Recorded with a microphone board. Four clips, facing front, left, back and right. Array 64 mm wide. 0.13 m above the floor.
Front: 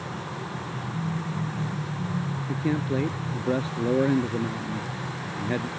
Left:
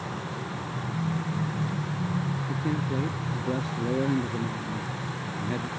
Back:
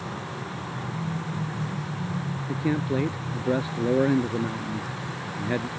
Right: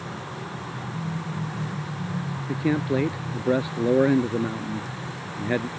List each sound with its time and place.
2.5 s a man speaking: 95° right